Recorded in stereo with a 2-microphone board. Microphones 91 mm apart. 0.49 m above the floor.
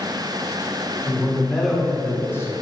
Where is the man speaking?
15° right (ahead or behind), 1.8 m; by 2.5 s 35° left (ahead or behind), 1.3 m.